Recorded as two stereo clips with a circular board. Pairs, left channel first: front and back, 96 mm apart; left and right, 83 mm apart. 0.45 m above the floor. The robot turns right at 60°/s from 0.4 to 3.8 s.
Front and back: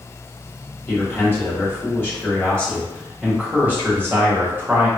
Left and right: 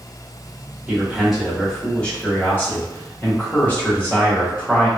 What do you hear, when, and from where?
0.9 s a man speaking: 40° right, 1.3 m; by 4.9 s 140° left, 1.3 m